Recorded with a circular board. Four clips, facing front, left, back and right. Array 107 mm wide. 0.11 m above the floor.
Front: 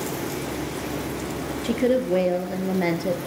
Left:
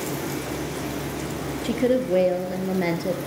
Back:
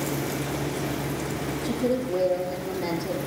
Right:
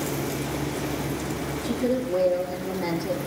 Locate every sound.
1.6 s a woman speaking: 45° left, 2.5 m